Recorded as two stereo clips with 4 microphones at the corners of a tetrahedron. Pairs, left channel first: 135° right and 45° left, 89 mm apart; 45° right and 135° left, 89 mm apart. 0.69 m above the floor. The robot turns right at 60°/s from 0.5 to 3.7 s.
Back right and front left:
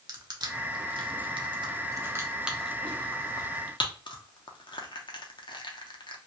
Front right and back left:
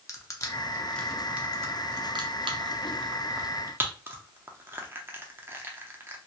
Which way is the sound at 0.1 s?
5° left.